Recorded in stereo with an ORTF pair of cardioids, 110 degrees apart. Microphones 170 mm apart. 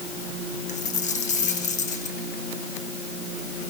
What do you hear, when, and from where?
0.7 s a dropped coin: 45° left, 6.5 m